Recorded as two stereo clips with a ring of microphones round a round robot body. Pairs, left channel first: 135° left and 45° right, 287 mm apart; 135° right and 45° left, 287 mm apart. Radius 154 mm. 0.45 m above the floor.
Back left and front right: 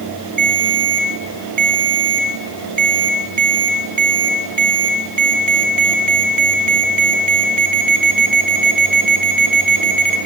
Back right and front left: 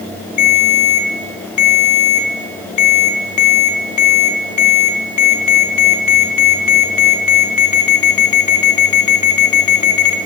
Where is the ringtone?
105° right, 3 m.